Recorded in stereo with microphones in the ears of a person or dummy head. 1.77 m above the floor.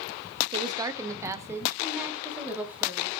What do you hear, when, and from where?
0.5 s a woman speaking: 30° right (ahead or behind), 0.8 m; by 3.1 s 5° right (ahead or behind), 3.5 m